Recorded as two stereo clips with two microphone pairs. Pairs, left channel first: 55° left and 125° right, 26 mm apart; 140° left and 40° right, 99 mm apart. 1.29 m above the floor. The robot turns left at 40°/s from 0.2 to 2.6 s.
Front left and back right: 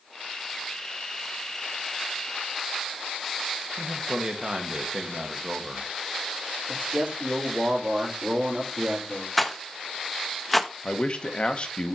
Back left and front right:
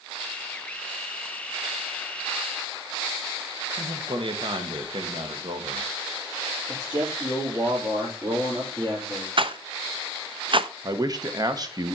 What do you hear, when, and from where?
3.8 s a man speaking: 70° right, 1.2 m
6.7 s a man speaking: 100° right, 3.5 m
9.4 s a rattle: 30° right, 0.5 m
10.8 s a man speaking: 10° left, 0.9 m